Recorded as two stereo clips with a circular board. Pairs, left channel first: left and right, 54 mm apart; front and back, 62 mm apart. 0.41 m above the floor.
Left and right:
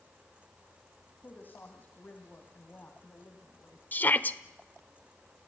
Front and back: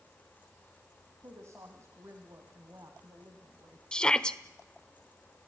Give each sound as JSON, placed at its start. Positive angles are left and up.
{"t": 1.2, "sound": "a woman speaking", "azimuth_deg": 145, "distance_m": 2.5}
{"t": 3.9, "sound": "a shout", "azimuth_deg": 65, "distance_m": 1.1}